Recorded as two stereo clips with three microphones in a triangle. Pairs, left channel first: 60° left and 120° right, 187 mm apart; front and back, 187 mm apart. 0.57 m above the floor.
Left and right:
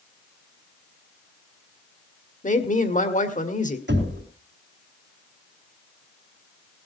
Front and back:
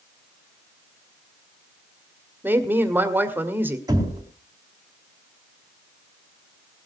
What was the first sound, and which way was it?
A woman speaking, 100° left.